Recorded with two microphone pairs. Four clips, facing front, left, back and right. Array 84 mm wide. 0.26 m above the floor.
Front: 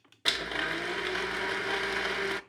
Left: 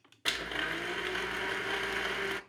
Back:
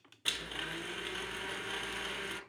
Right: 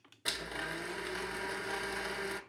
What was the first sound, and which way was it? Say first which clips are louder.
A blender: left 4 dB, front 9 dB; 10° left.